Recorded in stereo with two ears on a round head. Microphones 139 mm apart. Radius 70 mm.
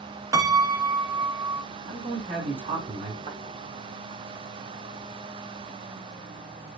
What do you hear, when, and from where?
0.3 s a piano: 20° right (ahead or behind), 0.8 m
1.9 s a man speaking: 40° right (ahead or behind), 3.5 m
3.3 s a thud: 35° right (ahead or behind), 2.5 m